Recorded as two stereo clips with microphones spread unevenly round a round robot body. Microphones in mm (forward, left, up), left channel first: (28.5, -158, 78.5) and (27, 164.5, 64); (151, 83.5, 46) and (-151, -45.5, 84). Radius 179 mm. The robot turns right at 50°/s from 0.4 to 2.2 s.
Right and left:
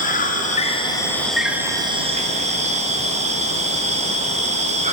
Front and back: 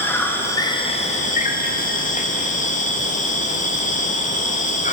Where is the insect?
45° right, 0.7 m; by 4.9 s 45° left, 0.7 m.